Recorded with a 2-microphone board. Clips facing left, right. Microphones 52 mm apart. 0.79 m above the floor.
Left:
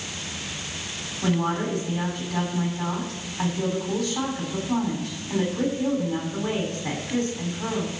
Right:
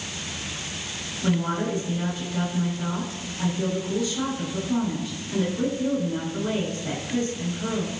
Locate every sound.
1.2 s a woman speaking: 80° left, 7 m